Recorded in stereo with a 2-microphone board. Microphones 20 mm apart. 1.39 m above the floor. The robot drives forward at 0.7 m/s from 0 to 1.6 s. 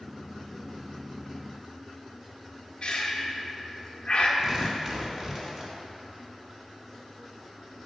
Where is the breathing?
50° left (ahead or behind), 0.7 m.